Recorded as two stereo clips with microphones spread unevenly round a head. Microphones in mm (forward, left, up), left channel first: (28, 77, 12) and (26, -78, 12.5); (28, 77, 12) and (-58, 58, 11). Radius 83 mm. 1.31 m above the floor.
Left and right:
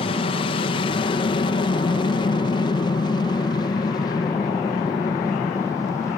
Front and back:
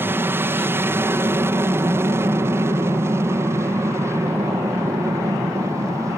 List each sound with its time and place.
0.0 s an aircraft: 135° left; by 6.2 s 155° left